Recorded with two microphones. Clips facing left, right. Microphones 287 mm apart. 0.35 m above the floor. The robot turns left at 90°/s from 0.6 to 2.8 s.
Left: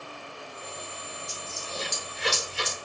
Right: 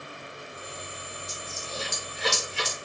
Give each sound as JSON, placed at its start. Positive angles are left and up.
{"t": 1.3, "sound": "a dropped coin", "side_deg": 40, "distance_m": 1.5}